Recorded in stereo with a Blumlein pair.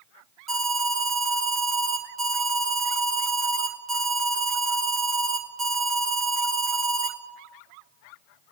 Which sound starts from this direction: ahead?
An alarm, at 0.5 s.